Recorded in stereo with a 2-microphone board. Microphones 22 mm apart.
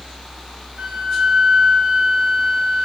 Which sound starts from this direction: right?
A flute, at 0.8 s.